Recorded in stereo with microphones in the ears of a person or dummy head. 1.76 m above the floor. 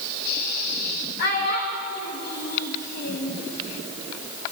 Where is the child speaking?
60° left (ahead or behind), 1.7 m.